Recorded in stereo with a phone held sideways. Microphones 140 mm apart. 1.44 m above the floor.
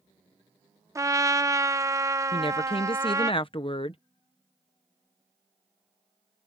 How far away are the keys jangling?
No keys jangling in this recording.